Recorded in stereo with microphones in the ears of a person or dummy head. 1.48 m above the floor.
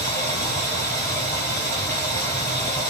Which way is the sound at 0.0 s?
15° left (ahead or behind).